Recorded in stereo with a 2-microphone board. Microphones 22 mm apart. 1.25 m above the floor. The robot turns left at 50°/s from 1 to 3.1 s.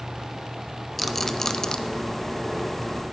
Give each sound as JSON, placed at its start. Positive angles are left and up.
{"t": 1.0, "sound": "a rattle", "side_deg": 5, "distance_m": 0.5}